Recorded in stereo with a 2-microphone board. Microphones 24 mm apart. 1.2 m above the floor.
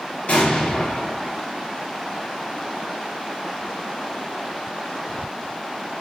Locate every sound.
0.3 s an explosion: 85° left, 0.8 m